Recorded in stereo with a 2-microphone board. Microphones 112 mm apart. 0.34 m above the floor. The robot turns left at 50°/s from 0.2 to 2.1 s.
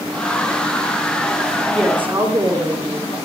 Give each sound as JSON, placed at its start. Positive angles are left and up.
{"t": 1.7, "sound": "a woman speaking", "side_deg": 0, "distance_m": 5.5}